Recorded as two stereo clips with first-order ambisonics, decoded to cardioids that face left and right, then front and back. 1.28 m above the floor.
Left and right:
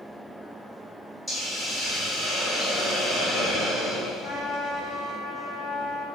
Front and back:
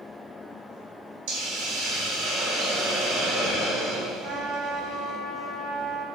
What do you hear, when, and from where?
1.3 s a hiss: straight behind, 1.8 m
4.2 s a trumpet: 165° left, 1.2 m